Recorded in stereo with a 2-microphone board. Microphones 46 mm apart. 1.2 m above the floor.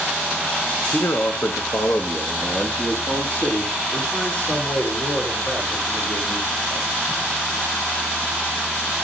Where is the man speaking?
80° left, 0.9 m; by 6.9 s 30° left (ahead or behind), 4.5 m.